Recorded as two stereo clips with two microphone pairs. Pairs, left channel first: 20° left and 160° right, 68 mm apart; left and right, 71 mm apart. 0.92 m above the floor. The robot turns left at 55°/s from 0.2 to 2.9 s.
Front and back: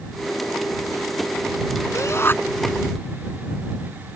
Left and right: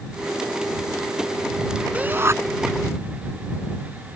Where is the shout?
15° right; by 2.4 s 40° right.